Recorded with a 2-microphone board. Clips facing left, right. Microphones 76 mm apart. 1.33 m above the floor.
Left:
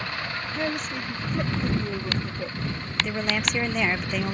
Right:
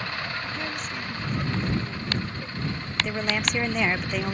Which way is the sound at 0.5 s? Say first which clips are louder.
Left 4 dB; 50° left (ahead or behind).